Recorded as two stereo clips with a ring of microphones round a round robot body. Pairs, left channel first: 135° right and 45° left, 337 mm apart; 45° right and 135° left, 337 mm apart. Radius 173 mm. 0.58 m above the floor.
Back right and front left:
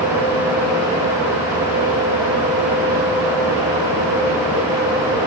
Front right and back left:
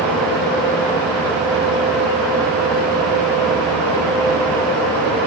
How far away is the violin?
No violin in this recording.